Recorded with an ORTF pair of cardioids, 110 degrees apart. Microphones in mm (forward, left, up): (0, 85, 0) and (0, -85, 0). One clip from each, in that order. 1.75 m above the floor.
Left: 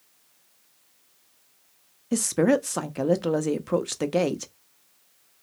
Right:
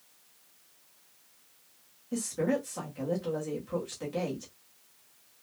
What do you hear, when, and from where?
2.1 s a woman speaking: 70° left, 0.6 m